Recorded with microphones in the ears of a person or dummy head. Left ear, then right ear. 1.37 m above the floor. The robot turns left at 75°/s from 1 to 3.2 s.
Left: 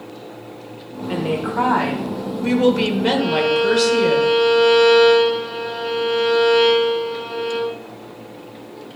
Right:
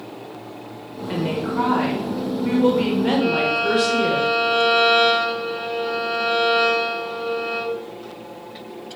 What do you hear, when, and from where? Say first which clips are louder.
1.1 s a woman speaking: left 2 dB; straight behind, 1.8 m; by 4.2 s 20° left, 1.8 m
3.2 s a violin: left 3 dB; 5° left (ahead or behind), 4 m